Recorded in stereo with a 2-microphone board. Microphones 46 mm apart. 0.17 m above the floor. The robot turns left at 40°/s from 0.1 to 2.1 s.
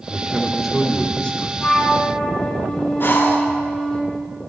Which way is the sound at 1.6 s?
35° left (ahead or behind).